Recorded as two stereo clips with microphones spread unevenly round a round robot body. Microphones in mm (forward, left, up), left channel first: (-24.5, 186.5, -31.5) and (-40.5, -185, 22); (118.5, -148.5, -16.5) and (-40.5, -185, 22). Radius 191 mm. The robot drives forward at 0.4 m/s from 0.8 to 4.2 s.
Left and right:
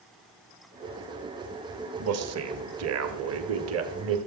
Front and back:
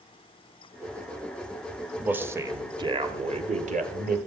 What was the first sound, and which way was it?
A man speaking, 70° right.